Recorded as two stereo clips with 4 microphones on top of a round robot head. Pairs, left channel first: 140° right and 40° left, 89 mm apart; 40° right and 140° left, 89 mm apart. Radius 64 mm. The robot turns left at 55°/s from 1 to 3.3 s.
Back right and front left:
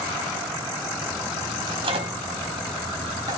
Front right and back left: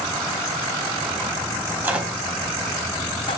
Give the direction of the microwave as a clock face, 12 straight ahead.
9 o'clock.